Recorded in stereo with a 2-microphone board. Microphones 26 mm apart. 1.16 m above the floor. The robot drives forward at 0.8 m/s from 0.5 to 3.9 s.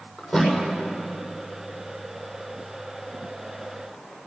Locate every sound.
0.2 s a thud: 35° left (ahead or behind), 7 m